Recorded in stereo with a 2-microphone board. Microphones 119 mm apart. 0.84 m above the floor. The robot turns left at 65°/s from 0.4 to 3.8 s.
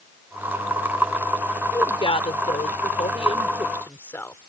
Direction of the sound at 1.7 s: 155° left.